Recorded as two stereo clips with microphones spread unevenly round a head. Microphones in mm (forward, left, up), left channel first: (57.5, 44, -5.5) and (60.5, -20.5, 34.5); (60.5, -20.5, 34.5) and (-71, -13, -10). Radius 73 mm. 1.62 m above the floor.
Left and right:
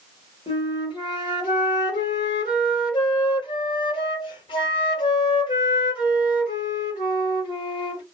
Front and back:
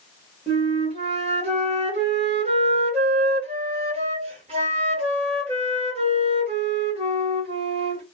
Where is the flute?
115° left, 1.2 m.